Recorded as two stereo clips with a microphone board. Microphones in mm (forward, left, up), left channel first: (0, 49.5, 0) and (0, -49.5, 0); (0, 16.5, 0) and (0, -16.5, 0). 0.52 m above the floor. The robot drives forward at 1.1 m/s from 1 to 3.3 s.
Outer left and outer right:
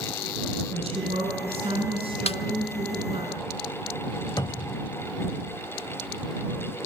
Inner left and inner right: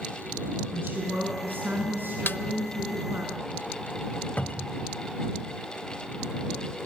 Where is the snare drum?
80° left, 0.8 m; by 2.4 s 70° left (ahead or behind), 0.8 m.